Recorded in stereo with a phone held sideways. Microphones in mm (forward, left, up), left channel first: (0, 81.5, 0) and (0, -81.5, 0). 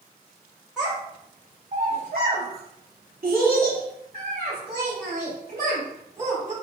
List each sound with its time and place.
0.8 s a child speaking: 5° right (ahead or behind), 1.0 m; by 6.5 s 50° right (ahead or behind), 3.5 m